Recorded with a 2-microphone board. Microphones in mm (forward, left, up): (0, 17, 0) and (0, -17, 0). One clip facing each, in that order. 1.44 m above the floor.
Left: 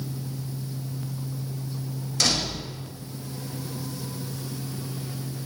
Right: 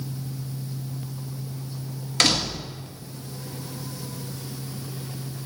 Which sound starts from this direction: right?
A door slam, at 2.2 s.